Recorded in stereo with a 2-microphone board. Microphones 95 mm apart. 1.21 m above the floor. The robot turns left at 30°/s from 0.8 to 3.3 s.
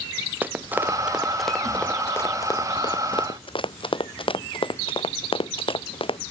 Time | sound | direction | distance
0.4 | running footsteps | 20° right (ahead or behind) | ?